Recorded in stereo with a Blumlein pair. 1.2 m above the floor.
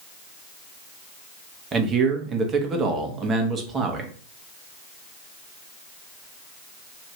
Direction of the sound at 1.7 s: 20° right.